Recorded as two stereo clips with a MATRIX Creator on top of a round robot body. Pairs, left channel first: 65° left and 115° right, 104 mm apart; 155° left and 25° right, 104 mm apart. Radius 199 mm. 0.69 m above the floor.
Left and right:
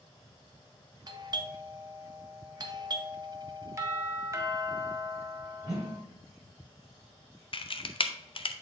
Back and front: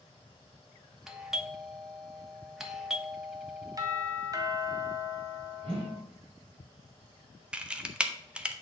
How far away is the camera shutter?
About 1.0 m.